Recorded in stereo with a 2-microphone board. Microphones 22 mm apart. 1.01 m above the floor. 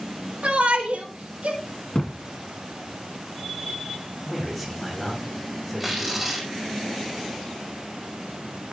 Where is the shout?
80° right, 3.5 m; by 1.6 s 85° right, 4 m.